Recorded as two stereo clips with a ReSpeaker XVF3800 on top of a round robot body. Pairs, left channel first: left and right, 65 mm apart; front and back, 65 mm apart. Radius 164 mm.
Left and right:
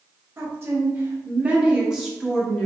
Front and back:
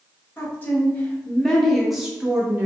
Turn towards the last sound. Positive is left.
turn(degrees=155)